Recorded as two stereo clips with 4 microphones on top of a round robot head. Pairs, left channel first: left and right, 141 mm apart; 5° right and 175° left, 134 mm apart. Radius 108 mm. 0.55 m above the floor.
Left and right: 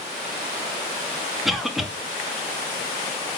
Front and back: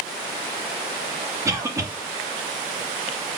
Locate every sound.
1.4 s a cough: 175° right, 1.1 m